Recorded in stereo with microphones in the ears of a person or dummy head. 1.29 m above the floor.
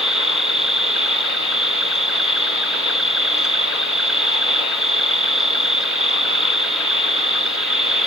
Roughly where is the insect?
Centre.